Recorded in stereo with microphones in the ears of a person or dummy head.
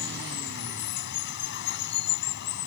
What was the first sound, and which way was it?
Running water, 55° left (ahead or behind).